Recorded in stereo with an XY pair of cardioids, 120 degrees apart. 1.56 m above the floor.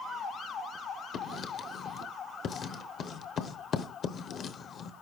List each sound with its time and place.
1.1 s writing: 50° left, 0.8 m